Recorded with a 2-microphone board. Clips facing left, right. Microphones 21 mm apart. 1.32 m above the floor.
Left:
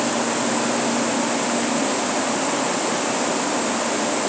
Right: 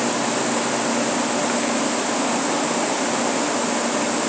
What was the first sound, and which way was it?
Only background noise.